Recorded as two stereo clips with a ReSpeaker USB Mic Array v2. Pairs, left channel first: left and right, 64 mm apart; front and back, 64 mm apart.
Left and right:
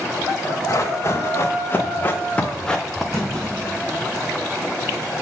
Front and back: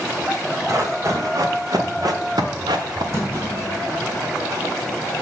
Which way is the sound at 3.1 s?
135° right.